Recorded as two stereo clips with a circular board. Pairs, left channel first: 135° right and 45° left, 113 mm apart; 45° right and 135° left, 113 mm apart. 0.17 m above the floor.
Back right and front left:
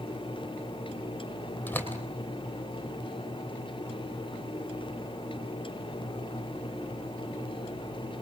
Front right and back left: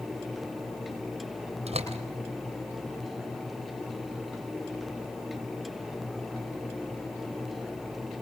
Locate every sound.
1.7 s a door slam: 150° left, 3.5 m